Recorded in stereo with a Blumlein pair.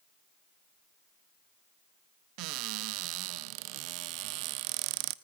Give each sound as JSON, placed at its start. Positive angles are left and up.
{"t": 2.4, "sound": "a cupboard door", "azimuth_deg": -40, "distance_m": 0.7}